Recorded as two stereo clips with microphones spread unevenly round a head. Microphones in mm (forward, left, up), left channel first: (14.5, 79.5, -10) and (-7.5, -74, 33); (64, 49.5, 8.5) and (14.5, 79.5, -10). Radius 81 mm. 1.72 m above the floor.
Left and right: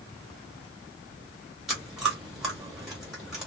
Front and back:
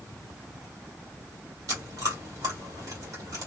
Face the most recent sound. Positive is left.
turn(degrees=-170)